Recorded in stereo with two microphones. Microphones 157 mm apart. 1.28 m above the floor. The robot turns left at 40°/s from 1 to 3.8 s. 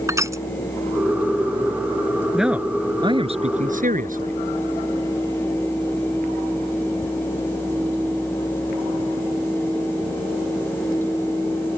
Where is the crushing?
20° right (ahead or behind).